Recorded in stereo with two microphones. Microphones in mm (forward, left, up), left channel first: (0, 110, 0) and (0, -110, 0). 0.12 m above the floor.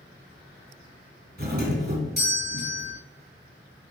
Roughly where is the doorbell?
Right.